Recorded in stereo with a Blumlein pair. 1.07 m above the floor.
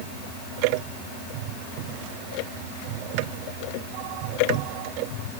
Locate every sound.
Only background noise.